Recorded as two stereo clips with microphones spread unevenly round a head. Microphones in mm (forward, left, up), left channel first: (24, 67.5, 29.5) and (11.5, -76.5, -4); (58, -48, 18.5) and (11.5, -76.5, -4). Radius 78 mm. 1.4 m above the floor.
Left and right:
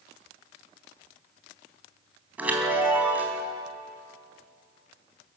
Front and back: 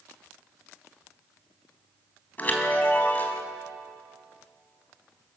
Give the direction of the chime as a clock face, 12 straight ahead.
12 o'clock.